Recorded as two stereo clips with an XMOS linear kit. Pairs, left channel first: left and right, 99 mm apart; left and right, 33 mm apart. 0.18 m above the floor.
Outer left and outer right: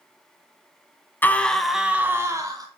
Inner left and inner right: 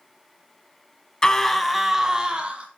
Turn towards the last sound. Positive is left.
turn(degrees=-40)  # may be behind; listen again after turning